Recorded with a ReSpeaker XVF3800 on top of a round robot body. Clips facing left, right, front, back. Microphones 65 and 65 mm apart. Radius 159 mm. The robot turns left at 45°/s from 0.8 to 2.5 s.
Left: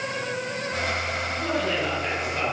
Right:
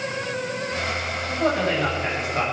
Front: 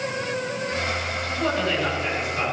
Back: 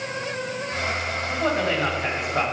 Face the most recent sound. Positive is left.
turn(degrees=-165)